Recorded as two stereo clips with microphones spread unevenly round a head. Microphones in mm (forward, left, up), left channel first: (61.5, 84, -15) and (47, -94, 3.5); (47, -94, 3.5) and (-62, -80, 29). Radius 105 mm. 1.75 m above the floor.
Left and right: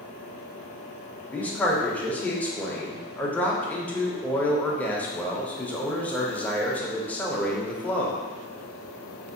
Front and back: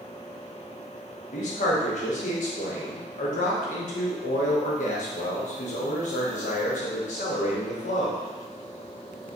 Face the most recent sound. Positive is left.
turn(degrees=0)